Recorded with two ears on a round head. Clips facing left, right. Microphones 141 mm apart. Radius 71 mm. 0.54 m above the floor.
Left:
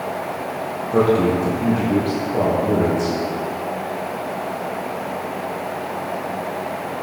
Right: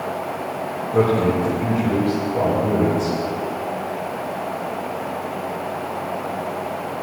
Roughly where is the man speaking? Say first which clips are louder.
Left 2 dB; left.